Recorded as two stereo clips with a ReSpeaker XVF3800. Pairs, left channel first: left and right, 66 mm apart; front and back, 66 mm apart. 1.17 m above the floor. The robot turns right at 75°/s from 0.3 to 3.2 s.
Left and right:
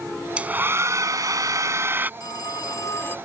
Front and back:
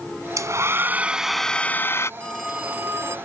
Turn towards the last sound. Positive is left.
turn(degrees=145)